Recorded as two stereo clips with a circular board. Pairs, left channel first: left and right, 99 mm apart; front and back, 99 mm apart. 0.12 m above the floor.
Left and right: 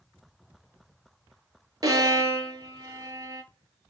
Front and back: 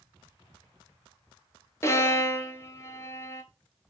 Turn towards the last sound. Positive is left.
turn(degrees=-50)